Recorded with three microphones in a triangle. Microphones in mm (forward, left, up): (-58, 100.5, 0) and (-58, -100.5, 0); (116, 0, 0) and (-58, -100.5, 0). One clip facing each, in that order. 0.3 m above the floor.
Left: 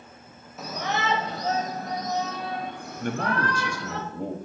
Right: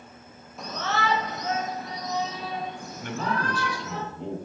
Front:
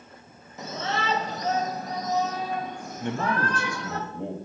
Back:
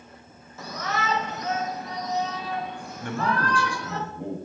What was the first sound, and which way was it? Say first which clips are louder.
A shout: even, even; 10° left.